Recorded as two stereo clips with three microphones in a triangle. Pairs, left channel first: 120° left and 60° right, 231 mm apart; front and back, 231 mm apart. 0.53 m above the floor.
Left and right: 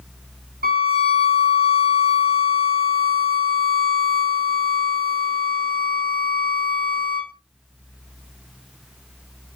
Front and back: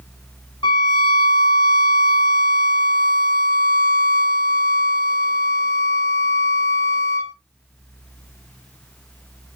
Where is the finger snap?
No finger snap in this recording.